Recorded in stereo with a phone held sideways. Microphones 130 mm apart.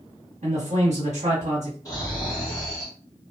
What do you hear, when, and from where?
0.4 s a man speaking: 60° right (ahead or behind), 1.0 m
1.9 s snoring: 25° left (ahead or behind), 1.6 m